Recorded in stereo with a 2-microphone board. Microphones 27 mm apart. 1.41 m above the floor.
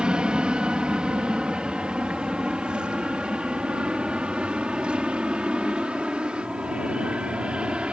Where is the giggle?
I don't hear a giggle.